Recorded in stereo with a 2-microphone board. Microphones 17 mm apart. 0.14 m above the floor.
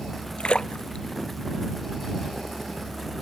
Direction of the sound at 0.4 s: 65° left (ahead or behind).